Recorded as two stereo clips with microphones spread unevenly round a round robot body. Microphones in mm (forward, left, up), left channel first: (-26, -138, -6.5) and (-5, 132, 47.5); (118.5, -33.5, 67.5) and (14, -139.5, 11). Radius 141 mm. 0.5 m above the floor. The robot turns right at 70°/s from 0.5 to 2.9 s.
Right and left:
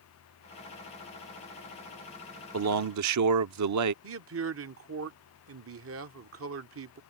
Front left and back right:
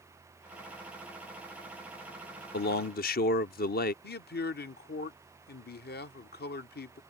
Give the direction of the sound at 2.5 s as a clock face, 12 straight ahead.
10 o'clock.